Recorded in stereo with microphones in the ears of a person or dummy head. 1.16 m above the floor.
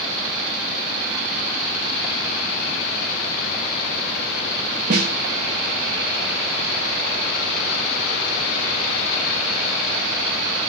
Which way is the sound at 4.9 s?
35° right (ahead or behind).